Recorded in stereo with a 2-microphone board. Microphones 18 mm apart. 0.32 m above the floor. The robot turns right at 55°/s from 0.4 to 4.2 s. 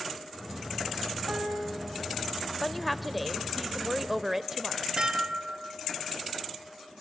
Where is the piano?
70° right (ahead or behind), 6.5 m; by 1.8 s 85° right, 6.5 m.